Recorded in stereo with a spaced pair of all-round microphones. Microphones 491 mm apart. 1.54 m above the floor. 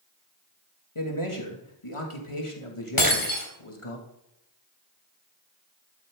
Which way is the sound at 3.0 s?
45° left (ahead or behind).